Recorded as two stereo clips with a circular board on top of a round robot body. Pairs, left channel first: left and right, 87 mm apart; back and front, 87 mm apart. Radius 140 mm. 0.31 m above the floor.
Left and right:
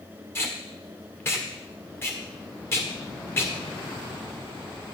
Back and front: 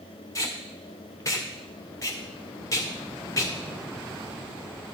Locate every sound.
0.3 s tape being pulled: 140° left, 2 m